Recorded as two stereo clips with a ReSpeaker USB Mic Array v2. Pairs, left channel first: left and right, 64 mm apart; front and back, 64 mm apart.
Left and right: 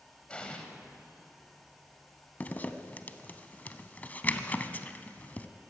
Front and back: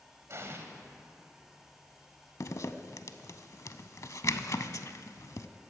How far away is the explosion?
About 1.4 m.